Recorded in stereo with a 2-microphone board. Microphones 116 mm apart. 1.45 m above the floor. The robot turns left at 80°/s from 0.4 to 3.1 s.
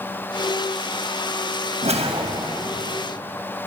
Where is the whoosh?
105° right, 1.5 m; by 2.8 s 175° left, 1.5 m.